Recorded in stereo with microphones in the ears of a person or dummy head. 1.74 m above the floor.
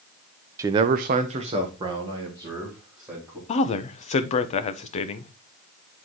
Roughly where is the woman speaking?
Left.